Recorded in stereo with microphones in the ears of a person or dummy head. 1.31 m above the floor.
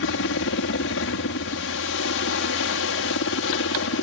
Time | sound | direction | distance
0.0 | a helicopter | 55° left (ahead or behind) | ?